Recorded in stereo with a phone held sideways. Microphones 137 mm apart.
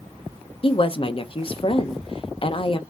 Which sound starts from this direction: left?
A woman speaking, at 0.6 s.